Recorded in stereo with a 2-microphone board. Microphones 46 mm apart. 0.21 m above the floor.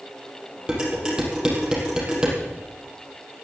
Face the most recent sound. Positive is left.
turn(degrees=-20)  # may be behind; listen again after turning